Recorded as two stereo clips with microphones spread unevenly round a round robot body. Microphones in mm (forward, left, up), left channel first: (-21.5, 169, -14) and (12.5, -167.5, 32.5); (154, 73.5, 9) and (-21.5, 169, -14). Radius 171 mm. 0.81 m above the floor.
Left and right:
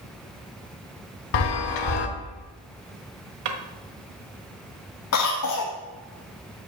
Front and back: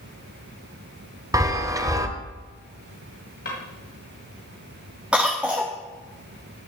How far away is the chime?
About 1.3 m.